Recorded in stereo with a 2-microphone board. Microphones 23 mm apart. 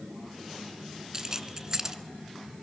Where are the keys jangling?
25° right (ahead or behind), 0.9 m.